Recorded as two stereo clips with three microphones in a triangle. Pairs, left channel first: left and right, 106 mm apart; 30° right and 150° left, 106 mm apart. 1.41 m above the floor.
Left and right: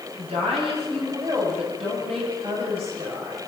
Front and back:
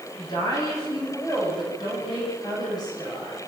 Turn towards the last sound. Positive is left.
turn(degrees=-80)